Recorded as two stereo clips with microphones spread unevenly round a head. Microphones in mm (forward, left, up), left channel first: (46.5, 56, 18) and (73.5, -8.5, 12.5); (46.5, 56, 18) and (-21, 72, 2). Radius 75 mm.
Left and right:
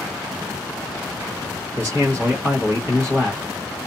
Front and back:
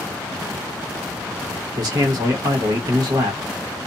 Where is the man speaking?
175° right, 1.1 m.